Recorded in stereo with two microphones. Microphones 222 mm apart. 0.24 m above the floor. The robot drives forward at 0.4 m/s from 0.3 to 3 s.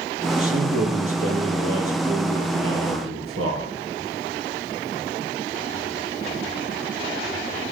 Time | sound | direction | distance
0.4 | a man speaking | 80° right | 6.5 m